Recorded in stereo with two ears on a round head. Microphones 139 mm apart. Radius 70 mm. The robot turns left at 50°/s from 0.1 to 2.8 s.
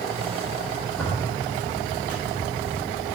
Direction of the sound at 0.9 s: Straight behind.